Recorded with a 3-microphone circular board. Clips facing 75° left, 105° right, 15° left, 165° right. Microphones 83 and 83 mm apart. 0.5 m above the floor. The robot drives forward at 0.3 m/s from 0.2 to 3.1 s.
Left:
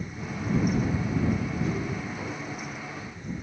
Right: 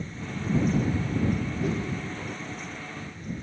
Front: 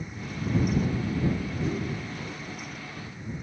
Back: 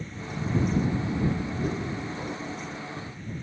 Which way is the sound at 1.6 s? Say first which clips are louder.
Right 3 dB, front 1 dB; 135° right.